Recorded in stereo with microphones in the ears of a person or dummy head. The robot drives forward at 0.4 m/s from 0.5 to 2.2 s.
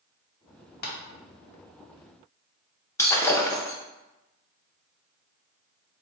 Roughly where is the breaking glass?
Centre.